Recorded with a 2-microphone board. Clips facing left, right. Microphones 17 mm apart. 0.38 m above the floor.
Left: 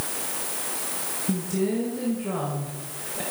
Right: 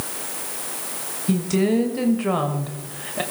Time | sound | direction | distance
1.3 | a woman speaking | 40° right (ahead or behind) | 1.7 m